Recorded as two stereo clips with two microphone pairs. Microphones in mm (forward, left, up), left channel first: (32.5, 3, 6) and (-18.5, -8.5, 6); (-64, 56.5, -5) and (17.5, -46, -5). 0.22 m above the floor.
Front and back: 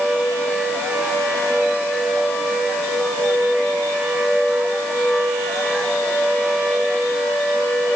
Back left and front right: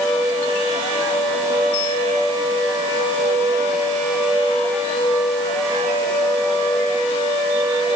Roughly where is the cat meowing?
No cat meowing in this recording.